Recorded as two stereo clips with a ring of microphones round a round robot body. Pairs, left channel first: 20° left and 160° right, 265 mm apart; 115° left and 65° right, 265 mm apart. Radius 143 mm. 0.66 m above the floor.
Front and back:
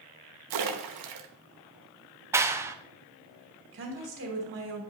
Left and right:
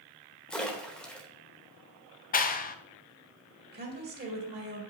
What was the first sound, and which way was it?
A splash, 160° right.